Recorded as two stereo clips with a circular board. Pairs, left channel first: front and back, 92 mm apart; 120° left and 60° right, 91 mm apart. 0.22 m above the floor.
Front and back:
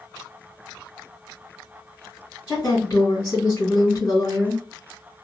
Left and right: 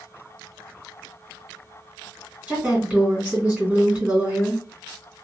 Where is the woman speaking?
Straight ahead, 1.8 m.